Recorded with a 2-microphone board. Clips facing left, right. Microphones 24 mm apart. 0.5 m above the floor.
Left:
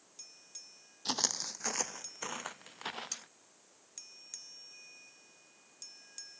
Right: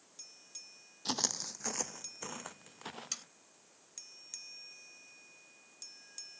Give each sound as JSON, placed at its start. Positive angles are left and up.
{"t": 1.1, "sound": "footsteps", "side_deg": 5}
{"t": 3.1, "sound": "sawing", "side_deg": -20}